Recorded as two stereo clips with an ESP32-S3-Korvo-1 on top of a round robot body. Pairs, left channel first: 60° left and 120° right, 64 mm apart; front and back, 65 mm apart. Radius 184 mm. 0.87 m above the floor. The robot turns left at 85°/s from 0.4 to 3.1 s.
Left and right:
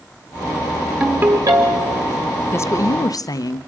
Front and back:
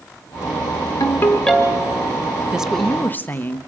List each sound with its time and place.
1.0 s a ringtone: 40° right, 1.3 m; by 2.0 s 130° right, 1.3 m
2.5 s a woman speaking: 110° left, 1.0 m; by 3.6 s 60° left, 1.0 m